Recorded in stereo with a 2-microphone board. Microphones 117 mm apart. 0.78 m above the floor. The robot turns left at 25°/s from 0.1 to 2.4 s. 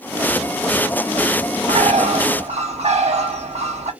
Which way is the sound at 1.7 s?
75° right (ahead or behind).